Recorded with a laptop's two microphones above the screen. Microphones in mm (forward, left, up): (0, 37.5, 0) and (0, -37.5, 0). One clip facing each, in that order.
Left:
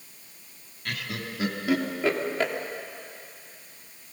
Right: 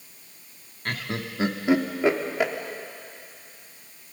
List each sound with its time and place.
0.8 s laughter: 40° right (ahead or behind), 2.5 m; by 2.5 s 10° right (ahead or behind), 2.5 m